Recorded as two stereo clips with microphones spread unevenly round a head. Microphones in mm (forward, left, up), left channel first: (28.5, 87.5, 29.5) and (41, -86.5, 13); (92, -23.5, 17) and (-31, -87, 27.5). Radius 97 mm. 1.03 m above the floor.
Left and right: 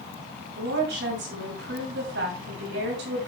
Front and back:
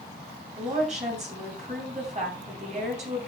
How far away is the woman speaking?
About 7 m.